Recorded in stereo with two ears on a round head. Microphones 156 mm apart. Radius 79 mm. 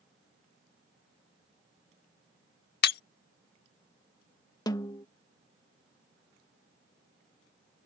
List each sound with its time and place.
2.8 s breaking glass: 65° left (ahead or behind)
4.7 s a snare drum: 25° left (ahead or behind)